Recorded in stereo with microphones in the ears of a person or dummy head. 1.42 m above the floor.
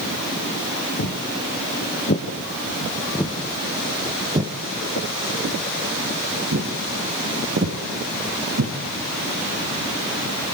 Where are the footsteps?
50° left (ahead or behind), 5 m; by 8.7 s 75° right (ahead or behind), 8.5 m.